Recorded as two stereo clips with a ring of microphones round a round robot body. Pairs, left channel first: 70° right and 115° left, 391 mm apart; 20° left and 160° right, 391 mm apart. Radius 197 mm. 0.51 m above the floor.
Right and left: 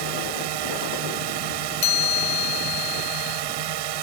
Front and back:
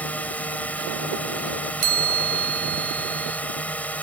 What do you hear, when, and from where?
0.0 s a drone: 110° left
1.8 s a chime: 85° right